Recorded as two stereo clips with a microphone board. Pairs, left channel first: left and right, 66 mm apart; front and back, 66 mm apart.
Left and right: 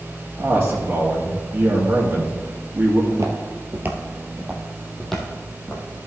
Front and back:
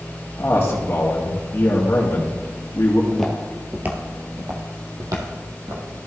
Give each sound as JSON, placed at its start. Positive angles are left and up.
{"t": 0.4, "sound": "a man speaking", "azimuth_deg": -50, "distance_m": 1.9}
{"t": 3.1, "sound": "footsteps", "azimuth_deg": -80, "distance_m": 1.6}